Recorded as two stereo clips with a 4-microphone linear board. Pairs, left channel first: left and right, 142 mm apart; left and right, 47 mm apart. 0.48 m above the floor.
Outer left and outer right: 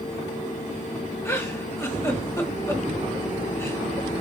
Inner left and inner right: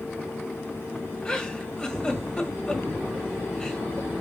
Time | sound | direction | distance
1.2 | a giggle | 20° left (ahead or behind) | 1.5 m